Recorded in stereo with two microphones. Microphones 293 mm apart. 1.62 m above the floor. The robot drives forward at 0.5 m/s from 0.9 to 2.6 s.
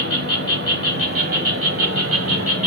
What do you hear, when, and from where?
0.0 s an insect: 50° right (ahead or behind), 1.9 m; by 2.7 s 55° right (ahead or behind), 1.7 m